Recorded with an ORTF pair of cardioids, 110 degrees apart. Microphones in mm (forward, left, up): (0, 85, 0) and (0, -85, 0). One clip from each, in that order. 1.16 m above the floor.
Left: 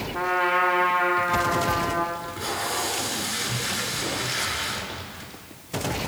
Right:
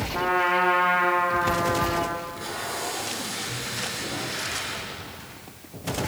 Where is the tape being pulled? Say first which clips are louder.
Left 3 dB; 30° left, 8.5 m.